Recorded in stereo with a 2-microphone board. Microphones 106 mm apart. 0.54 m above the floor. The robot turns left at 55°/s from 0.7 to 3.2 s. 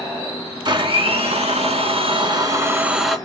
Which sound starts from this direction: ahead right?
A blender, at 0.7 s.